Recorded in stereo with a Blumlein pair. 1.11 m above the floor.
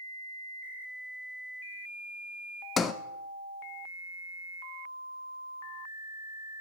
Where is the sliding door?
20° left, 0.6 m.